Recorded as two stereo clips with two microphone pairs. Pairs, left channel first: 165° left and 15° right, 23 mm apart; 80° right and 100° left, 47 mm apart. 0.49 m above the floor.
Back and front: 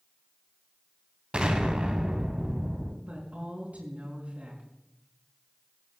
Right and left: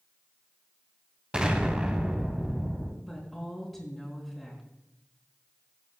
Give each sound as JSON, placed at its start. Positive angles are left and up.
{"t": 1.3, "sound": "an explosion", "azimuth_deg": 30, "distance_m": 1.9}
{"t": 3.0, "sound": "a woman speaking", "azimuth_deg": 10, "distance_m": 5.0}